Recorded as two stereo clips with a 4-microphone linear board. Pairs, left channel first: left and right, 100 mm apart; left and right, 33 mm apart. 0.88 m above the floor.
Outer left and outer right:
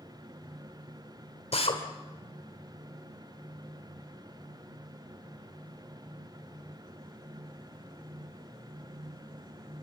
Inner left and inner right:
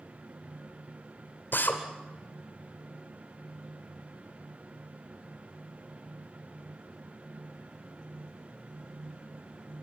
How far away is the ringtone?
I don't hear a ringtone.